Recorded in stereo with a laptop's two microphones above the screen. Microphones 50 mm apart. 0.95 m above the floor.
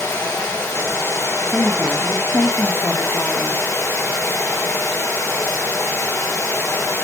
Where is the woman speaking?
55° left (ahead or behind), 1.3 m.